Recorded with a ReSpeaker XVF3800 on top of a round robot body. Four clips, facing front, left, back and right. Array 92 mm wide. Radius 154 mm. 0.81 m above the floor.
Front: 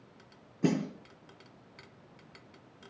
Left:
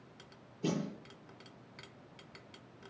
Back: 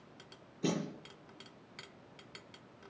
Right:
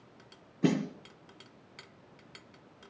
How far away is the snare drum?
About 3 m.